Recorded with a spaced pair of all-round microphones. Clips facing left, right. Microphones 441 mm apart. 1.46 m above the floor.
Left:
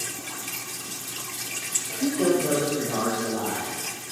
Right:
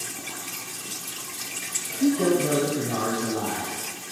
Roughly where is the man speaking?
Right.